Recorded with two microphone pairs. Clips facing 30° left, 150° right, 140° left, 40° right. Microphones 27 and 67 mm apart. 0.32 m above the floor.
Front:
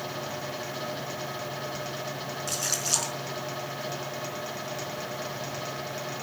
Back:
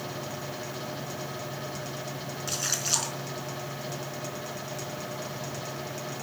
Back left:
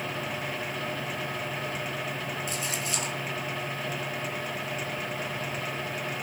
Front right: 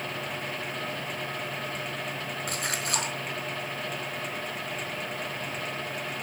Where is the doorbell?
No doorbell in this recording.